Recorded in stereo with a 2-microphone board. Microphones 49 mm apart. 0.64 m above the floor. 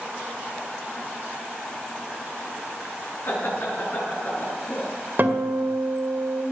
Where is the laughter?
45° left (ahead or behind), 8 m; by 4.9 s 55° left (ahead or behind), 8 m.